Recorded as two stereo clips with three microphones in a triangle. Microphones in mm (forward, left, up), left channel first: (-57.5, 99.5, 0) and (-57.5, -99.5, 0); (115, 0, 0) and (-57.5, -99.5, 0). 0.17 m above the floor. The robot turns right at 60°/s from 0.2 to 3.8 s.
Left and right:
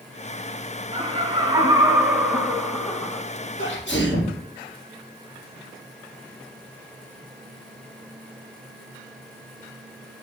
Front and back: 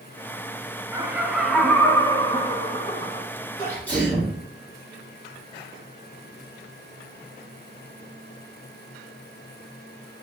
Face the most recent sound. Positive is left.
turn(degrees=110)